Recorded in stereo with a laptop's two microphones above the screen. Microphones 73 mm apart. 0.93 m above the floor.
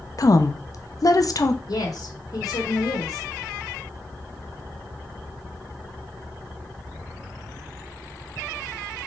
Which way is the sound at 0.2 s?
55° left (ahead or behind).